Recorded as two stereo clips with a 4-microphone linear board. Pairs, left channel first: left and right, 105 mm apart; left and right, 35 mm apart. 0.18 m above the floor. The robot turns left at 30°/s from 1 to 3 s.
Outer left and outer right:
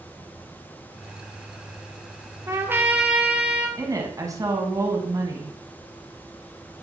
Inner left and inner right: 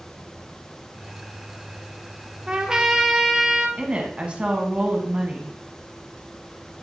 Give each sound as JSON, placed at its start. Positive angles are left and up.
{"t": 2.5, "sound": "a trumpet", "side_deg": -25, "distance_m": 1.2}
{"t": 3.8, "sound": "a woman speaking", "side_deg": -30, "distance_m": 1.6}